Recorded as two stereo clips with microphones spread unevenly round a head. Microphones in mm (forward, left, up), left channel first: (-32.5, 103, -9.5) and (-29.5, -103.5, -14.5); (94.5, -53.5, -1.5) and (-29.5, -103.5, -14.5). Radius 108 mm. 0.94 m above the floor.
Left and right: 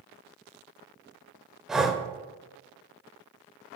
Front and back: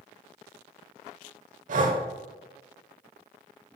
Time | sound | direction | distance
1.7 | breathing | straight behind | 0.9 m